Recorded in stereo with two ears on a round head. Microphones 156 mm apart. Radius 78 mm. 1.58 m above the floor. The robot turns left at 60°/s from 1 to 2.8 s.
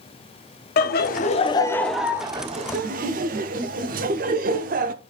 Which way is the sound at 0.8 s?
55° left (ahead or behind).